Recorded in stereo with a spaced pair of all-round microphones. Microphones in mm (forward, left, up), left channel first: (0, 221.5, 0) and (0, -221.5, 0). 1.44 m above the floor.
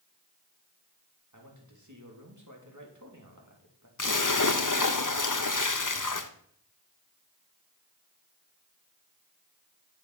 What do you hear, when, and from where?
1.3 s a man speaking: 40° right (ahead or behind), 3 m
4.0 s a splash: 45° left (ahead or behind), 0.8 m